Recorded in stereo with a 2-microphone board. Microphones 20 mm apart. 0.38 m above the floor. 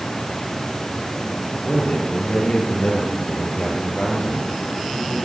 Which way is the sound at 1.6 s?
70° left (ahead or behind).